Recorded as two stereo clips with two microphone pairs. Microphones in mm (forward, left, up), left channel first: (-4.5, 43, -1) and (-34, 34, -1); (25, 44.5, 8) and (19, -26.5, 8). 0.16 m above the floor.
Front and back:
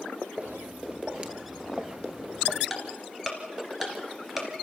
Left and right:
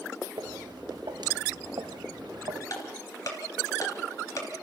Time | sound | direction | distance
0.4 | footsteps | 115° right | 2.5 m
2.7 | ticking | 120° left | 2.5 m